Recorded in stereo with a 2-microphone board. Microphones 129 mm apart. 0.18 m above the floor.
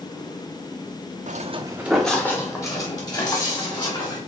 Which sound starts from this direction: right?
Footsteps, at 1.3 s.